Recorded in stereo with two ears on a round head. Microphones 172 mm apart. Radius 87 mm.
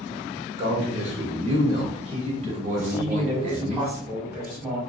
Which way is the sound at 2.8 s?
10° right (ahead or behind).